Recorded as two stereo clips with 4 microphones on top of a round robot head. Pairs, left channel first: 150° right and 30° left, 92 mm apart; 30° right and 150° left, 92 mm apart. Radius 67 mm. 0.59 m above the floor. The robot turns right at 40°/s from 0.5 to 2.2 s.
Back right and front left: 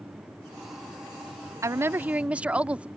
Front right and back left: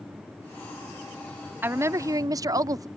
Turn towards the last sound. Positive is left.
turn(degrees=105)